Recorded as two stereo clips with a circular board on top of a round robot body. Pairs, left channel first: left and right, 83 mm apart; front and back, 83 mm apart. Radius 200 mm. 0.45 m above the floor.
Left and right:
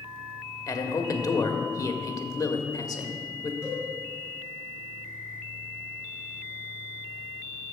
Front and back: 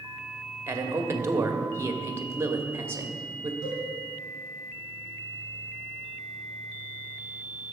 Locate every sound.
0.7 s a man speaking: 125° left, 1.8 m
3.6 s a cowbell: 35° left, 3.5 m